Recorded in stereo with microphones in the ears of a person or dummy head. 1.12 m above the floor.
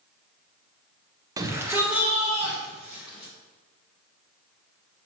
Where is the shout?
20° right (ahead or behind), 0.5 m; by 3.3 s 5° right (ahead or behind), 3 m.